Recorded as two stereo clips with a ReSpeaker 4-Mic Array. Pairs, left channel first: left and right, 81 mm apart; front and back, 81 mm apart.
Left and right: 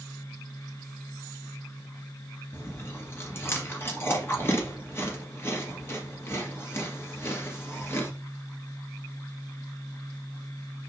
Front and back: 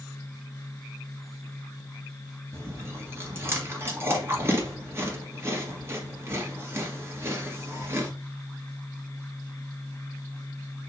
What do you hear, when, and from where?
2.5 s chewing: 135° left, 1.9 m